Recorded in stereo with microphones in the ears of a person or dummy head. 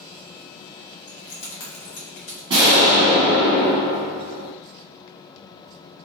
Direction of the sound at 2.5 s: 25° right (ahead or behind).